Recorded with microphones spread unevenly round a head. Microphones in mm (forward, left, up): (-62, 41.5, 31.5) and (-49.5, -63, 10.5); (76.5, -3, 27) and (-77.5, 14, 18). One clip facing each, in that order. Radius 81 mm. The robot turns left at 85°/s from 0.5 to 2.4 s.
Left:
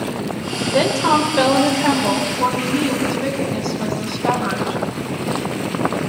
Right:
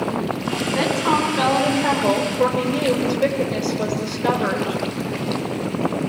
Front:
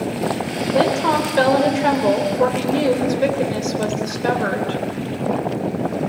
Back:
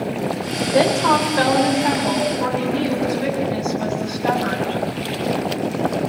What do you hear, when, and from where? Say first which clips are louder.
0.7 s a woman speaking: left 4 dB, back 1 dB; 105° left, 4.5 m; by 4.8 s 35° right, 4.5 m